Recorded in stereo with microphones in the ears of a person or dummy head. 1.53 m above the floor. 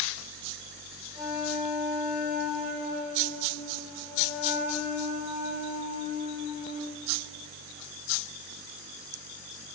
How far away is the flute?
About 0.9 m.